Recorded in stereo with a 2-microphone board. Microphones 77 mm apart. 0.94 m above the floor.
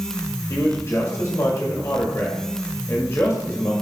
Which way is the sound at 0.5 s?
35° left (ahead or behind).